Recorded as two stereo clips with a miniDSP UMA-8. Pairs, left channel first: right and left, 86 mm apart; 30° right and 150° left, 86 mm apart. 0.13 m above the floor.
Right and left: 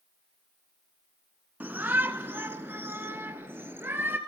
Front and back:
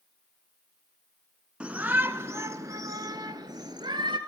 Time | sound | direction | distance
1.6 | a shout | 95° left | 1.1 m